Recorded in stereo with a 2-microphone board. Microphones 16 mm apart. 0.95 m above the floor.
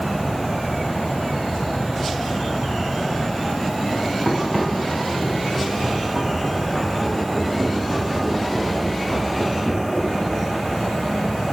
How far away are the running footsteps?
About 5.5 m.